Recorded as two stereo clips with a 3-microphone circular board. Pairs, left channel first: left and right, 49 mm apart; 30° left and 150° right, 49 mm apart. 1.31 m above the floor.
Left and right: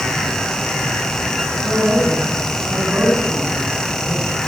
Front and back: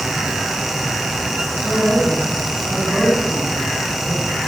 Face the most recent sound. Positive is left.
turn(degrees=-45)